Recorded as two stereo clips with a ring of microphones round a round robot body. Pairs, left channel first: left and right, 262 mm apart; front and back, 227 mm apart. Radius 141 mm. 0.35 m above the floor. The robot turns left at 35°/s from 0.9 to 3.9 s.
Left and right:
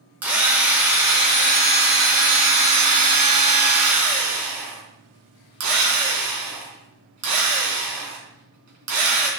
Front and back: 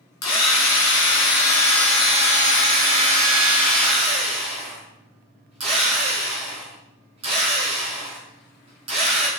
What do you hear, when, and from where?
0.2 s a drill: 5° right, 3.5 m; by 9.3 s 110° right, 3.5 m